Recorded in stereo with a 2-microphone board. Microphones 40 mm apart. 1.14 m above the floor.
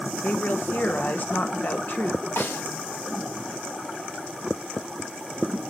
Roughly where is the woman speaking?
Left.